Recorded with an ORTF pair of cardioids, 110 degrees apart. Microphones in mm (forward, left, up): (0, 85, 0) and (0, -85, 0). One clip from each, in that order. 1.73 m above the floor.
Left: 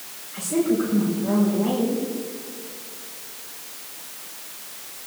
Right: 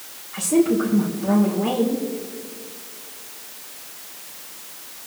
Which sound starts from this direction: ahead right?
A woman speaking, at 0.3 s.